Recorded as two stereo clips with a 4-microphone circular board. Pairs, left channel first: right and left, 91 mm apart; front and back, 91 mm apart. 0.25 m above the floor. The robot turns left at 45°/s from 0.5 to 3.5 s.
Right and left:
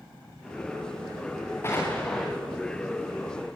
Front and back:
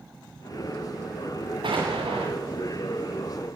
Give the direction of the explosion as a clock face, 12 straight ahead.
5 o'clock.